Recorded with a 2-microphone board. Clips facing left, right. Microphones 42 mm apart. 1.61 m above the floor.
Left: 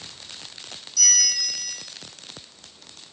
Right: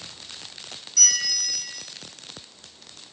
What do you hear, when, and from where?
1.0 s a bell: 45° right (ahead or behind), 2.5 m